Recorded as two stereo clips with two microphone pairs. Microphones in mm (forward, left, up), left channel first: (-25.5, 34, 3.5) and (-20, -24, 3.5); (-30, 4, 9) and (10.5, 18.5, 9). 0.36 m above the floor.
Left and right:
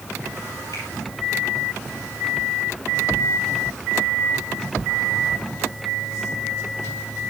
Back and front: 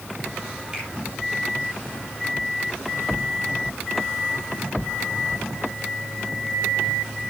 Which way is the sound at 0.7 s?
100° left.